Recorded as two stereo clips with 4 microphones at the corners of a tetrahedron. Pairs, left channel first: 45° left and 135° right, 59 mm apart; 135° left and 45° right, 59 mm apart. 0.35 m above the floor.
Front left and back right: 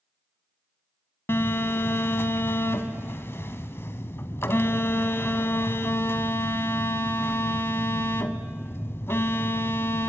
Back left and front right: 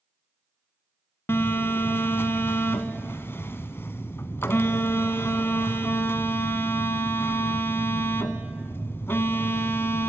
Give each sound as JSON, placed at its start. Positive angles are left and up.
{"t": 1.3, "sound": "a phone buzzing", "azimuth_deg": 90, "distance_m": 0.9}